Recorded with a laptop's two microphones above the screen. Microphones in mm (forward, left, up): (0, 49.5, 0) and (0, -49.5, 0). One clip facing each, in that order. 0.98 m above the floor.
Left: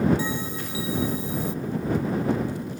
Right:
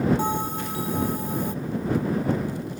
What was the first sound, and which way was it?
A bell, 55° right (ahead or behind).